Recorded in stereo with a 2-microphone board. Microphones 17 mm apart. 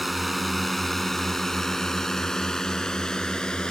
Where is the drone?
5° right (ahead or behind); by 3.7 s 45° left (ahead or behind).